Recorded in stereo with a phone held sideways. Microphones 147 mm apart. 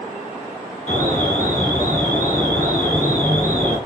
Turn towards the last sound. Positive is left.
turn(degrees=55)  # may be behind; listen again after turning